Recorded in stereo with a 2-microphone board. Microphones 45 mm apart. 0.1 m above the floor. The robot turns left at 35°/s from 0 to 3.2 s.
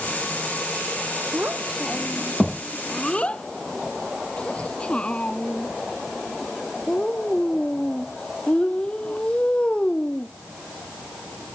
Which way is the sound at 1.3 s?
30° right (ahead or behind).